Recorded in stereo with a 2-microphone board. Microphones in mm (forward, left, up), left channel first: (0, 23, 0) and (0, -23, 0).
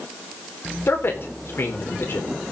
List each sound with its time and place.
0.9 s a man speaking: 60° left (ahead or behind), 4 m